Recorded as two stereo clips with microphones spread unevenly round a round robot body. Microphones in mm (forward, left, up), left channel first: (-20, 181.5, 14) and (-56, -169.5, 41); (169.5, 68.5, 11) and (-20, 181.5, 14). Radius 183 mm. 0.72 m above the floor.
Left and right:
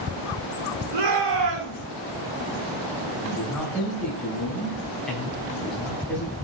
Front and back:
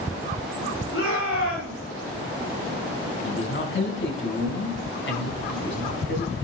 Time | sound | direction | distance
0.9 | a shout | 90° right | 7.5 m
3.2 | a man speaking | 5° right | 5.5 m